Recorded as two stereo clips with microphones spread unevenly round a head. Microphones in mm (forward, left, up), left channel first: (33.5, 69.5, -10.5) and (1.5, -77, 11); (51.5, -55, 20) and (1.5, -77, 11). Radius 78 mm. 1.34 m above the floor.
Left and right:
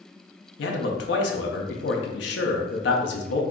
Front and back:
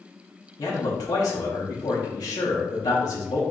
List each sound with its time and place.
0.6 s a man speaking: 70° left, 0.6 m